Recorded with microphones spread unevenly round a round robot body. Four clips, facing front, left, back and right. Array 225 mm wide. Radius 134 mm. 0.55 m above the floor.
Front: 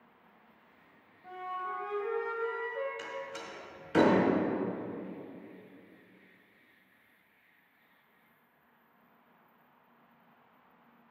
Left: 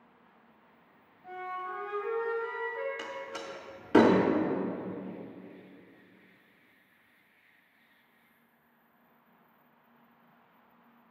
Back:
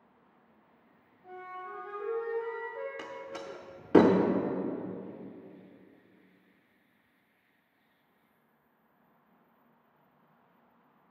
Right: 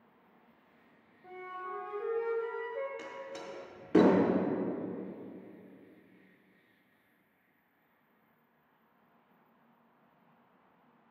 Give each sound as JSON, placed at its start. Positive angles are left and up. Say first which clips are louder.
{"t": 1.2, "sound": "a flute", "louder": "left 4 dB, front 5 dB", "azimuth_deg": -105, "distance_m": 2.0}
{"t": 3.0, "sound": "a door slam", "louder": "left 3 dB, even", "azimuth_deg": 165, "distance_m": 0.6}